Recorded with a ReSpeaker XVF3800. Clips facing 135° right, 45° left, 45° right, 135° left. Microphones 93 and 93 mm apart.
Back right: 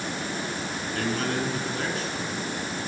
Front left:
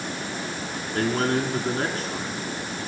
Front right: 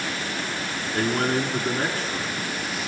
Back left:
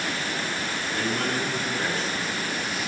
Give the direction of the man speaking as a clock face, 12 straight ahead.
12 o'clock.